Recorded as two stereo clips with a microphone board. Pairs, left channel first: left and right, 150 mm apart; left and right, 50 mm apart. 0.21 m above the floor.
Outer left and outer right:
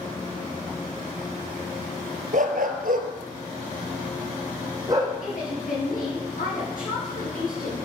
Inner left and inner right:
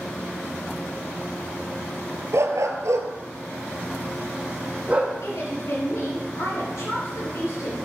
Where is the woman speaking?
70° left (ahead or behind), 4.5 m.